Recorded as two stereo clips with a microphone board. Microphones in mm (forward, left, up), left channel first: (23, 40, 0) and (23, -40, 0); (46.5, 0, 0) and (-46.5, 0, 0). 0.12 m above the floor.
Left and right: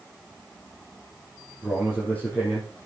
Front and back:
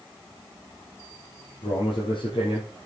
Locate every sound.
1.6 s a man speaking: 15° left, 5.5 m